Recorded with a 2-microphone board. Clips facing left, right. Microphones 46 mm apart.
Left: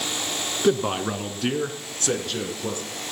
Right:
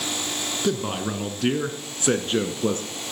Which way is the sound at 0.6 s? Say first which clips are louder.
Left 5 dB; 25° left (ahead or behind).